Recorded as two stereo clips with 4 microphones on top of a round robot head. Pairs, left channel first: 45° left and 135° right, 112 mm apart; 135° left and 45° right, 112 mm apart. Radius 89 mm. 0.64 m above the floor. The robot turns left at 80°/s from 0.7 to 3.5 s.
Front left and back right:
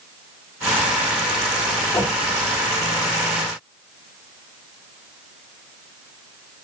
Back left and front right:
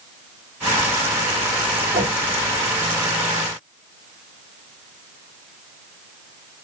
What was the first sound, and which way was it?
A whoosh, 25° right.